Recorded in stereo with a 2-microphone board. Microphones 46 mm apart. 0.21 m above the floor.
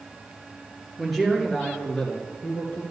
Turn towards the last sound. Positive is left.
turn(degrees=15)  # may be behind; listen again after turning